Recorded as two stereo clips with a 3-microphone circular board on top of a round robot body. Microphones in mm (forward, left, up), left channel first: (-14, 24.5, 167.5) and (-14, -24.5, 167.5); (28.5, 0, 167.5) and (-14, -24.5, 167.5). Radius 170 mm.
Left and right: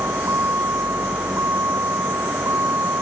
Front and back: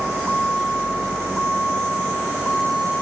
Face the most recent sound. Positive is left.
turn(degrees=-45)